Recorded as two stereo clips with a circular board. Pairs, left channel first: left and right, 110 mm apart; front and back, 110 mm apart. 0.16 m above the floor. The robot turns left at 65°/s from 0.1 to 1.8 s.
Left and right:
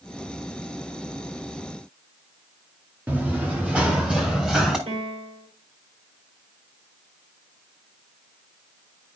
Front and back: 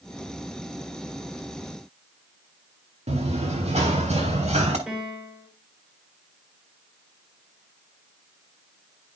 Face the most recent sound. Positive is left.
turn(degrees=-95)